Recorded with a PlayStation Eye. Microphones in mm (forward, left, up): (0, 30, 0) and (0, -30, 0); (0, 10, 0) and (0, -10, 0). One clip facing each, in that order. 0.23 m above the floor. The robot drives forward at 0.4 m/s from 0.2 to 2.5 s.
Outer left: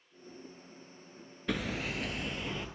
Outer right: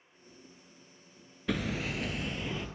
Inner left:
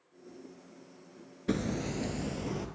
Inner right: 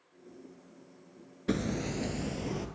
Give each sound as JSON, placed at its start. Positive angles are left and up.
{"t": 1.5, "sound": "hammering", "side_deg": 0, "distance_m": 0.7}